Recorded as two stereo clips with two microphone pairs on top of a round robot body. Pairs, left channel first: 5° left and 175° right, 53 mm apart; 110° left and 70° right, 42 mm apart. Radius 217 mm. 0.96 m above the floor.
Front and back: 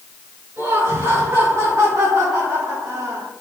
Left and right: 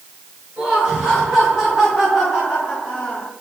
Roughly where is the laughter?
Behind right.